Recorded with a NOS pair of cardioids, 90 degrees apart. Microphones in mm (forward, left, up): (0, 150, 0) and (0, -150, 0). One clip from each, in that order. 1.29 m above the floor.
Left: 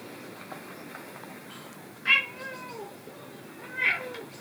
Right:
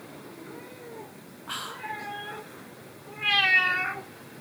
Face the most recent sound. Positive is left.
turn(degrees=-65)